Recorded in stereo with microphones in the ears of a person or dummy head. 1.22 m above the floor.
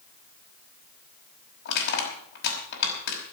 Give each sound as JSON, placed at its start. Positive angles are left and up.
{"t": 1.6, "sound": "crushing", "side_deg": 60, "distance_m": 5.0}